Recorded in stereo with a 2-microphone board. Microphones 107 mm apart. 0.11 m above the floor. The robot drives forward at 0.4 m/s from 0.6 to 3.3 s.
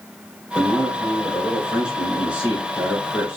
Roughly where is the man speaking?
Centre.